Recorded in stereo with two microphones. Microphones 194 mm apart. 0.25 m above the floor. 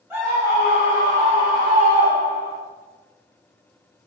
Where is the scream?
10° right (ahead or behind), 1.3 m; by 2.6 s 30° right (ahead or behind), 2.5 m.